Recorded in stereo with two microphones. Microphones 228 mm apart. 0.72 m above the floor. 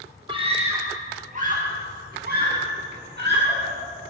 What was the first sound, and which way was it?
A scream, 25° right (ahead or behind).